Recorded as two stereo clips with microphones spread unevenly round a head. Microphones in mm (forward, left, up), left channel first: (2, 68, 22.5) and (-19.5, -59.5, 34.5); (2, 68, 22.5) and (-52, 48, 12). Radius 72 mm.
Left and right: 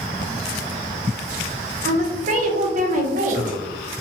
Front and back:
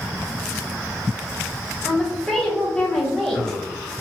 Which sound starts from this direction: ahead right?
A woman speaking, at 1.8 s.